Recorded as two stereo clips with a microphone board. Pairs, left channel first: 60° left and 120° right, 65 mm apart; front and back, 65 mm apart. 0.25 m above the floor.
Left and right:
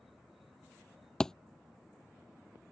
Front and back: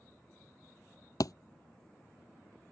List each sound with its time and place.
1.2 s a thud: 20° right